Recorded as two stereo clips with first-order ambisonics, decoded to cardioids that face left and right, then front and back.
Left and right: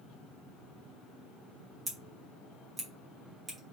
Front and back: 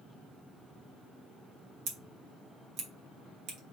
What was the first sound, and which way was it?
Scissors, 170° right.